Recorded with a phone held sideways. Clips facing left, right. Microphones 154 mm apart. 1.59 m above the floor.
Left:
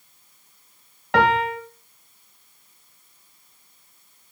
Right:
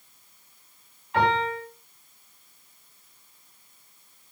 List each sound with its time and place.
1.1 s a piano: 80° left, 3 m